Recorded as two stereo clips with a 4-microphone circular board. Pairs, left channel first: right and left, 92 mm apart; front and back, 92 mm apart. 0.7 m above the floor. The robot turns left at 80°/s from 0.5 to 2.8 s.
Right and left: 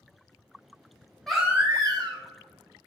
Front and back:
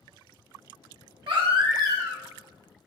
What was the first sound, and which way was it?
A baby crying, 175° right.